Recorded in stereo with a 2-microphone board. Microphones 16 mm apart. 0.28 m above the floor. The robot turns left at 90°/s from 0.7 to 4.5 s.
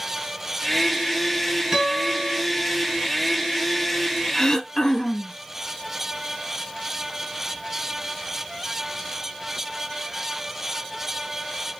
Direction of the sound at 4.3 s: 25° left (ahead or behind).